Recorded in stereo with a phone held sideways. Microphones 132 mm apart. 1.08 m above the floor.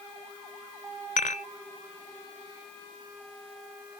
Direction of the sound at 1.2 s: 85° left.